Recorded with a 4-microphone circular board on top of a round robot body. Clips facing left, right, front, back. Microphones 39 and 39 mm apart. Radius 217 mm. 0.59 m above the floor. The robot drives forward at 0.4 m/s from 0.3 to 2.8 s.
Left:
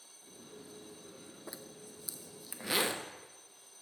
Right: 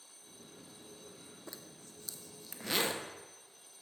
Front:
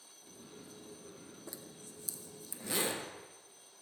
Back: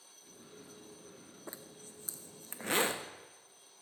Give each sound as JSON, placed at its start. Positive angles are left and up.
{"t": 1.5, "sound": "a zipper", "azimuth_deg": 160, "distance_m": 0.9}